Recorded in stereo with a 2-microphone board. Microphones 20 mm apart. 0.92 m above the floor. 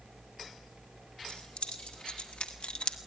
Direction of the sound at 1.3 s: 75° left (ahead or behind).